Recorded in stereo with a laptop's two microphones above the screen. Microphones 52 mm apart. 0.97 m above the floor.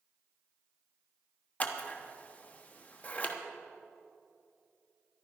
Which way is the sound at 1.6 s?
30° left (ahead or behind).